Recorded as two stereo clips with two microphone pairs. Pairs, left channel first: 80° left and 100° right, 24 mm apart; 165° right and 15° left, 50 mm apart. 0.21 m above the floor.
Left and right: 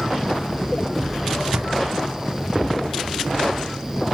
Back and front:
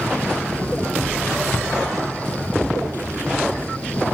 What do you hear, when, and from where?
1.5 s a drawer: 105° right, 0.6 m